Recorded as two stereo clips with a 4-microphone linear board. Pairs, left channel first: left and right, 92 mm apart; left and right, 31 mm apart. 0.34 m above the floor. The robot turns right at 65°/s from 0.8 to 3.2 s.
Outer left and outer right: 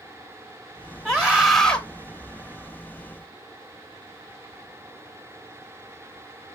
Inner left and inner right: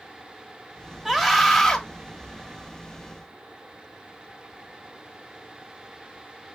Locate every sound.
1.1 s a scream: 5° right (ahead or behind), 0.8 m; by 1.8 s 10° left (ahead or behind), 0.8 m